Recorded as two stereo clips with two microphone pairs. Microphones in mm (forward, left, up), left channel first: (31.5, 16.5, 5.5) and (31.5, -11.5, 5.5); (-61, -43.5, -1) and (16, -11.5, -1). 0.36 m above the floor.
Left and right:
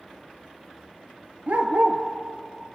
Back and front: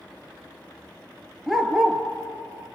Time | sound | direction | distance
1.5 | a dog barking | 65° right | 2.5 m